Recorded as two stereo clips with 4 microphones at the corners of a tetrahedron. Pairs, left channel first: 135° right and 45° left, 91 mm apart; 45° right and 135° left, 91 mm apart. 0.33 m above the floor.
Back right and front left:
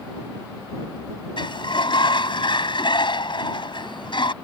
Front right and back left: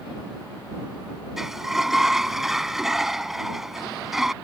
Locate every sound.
1.4 s a sliding door: 140° right